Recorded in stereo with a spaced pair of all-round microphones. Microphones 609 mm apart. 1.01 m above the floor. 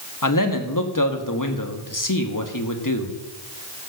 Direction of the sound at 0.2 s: 30° left (ahead or behind).